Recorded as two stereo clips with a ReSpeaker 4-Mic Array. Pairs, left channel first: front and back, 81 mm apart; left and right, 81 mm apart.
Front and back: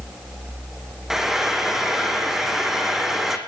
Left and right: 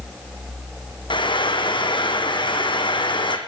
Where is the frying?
95° left, 3 m.